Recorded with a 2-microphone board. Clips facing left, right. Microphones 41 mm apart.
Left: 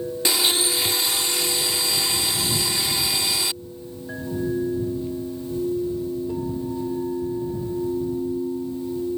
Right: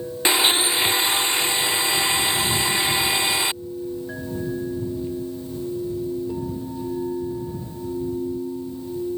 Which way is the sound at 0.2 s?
30° right (ahead or behind).